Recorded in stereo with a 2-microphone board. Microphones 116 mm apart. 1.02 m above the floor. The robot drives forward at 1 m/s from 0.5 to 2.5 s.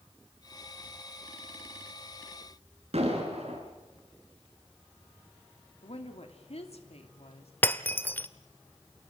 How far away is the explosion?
About 6 m.